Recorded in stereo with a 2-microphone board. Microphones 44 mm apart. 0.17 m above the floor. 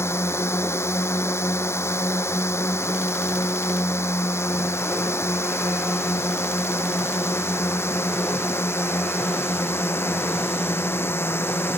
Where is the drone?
75° left (ahead or behind); by 11.8 s 60° left (ahead or behind).